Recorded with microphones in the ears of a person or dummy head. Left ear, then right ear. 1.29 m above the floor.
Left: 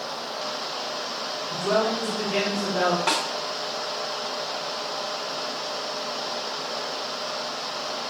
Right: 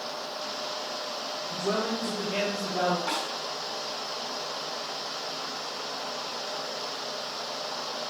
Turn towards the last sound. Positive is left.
turn(degrees=65)  # may be behind; listen again after turning